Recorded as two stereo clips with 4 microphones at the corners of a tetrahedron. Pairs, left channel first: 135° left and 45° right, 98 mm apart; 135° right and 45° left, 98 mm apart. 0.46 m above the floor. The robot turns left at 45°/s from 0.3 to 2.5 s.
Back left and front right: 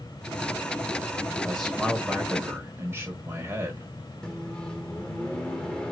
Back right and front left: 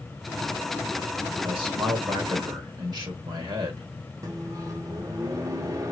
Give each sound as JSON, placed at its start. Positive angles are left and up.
{"t": 1.4, "sound": "a man speaking", "azimuth_deg": 60, "distance_m": 1.4}
{"t": 4.2, "sound": "a microwave", "azimuth_deg": 65, "distance_m": 0.7}